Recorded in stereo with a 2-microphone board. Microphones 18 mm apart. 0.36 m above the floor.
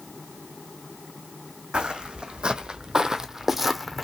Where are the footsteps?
65° right (ahead or behind), 0.9 m; by 4.0 s 5° left (ahead or behind), 0.8 m.